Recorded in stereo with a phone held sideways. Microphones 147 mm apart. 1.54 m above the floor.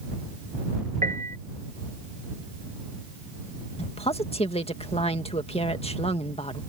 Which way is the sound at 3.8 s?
45° left (ahead or behind).